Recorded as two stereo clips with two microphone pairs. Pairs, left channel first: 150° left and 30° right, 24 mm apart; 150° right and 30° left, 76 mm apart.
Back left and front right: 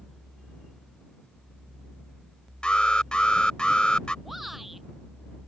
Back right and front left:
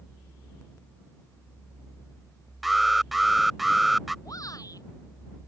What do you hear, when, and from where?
2.6 s an alarm: 120° left
4.2 s a shout: 110° right